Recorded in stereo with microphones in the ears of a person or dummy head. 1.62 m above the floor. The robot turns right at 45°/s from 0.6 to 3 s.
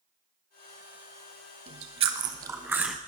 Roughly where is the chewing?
Right.